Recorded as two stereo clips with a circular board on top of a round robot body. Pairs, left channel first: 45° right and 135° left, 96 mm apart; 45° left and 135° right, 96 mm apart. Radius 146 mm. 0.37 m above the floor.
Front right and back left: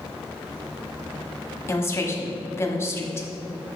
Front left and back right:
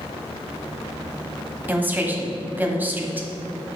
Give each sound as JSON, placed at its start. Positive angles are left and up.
{"t": 1.7, "sound": "a woman speaking", "azimuth_deg": -80, "distance_m": 1.4}